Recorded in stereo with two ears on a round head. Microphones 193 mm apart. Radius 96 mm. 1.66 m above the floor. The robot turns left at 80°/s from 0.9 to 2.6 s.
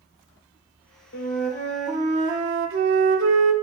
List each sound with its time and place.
1.1 s a flute: 50° left, 0.5 m; by 3.5 s 65° right, 0.5 m